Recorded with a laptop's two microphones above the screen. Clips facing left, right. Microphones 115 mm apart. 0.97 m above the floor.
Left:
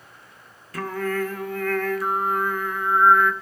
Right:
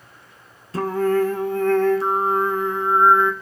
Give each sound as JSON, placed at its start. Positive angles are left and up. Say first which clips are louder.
{"t": 0.7, "sound": "singing", "louder": "right 7 dB", "side_deg": -30, "distance_m": 1.9}